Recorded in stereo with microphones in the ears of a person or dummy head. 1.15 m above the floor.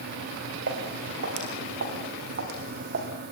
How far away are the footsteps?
About 6.5 m.